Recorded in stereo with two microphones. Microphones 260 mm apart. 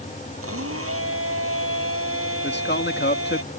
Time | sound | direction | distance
0.4 | a blender | 60° right (ahead or behind) | ?
2.4 | a man speaking | 40° left (ahead or behind) | ?